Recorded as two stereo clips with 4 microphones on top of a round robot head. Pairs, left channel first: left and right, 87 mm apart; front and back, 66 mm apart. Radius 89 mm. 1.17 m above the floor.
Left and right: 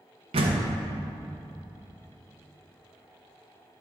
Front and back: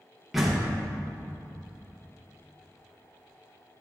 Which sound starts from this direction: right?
A door slam, at 0.3 s.